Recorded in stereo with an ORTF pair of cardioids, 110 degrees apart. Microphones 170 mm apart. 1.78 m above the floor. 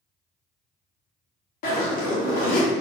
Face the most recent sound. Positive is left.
turn(degrees=60)